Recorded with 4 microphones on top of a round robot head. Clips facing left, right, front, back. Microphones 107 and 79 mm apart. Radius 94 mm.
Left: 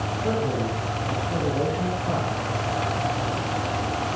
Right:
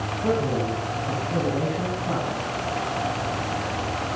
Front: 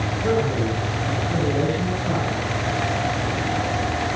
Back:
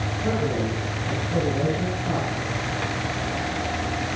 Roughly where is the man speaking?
Right.